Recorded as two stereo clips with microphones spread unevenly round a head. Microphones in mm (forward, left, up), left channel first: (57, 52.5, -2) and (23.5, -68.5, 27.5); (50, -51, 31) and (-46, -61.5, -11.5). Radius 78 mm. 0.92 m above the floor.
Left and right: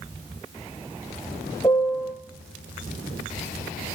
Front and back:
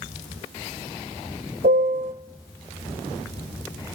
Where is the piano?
155° left, 1.0 m.